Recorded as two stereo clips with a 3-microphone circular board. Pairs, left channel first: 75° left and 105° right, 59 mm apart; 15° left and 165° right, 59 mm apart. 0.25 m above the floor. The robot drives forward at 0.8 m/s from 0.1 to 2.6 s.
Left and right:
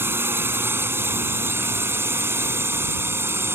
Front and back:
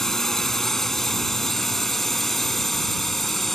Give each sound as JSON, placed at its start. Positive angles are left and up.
{"t": 0.0, "sound": "a drone", "azimuth_deg": -65}